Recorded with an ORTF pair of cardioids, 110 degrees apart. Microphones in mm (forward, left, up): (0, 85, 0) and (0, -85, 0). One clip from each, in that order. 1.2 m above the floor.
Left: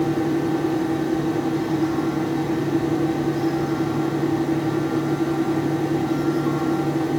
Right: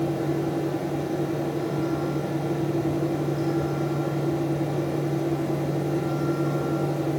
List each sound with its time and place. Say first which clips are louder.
0.0 s a fan: left 4 dB; 70° left, 5 m